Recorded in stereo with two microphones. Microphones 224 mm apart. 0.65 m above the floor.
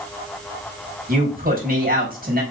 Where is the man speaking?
40° right (ahead or behind), 4 m.